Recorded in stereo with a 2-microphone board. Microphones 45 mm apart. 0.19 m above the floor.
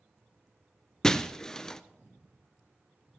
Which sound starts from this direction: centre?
Breaking glass, at 1.0 s.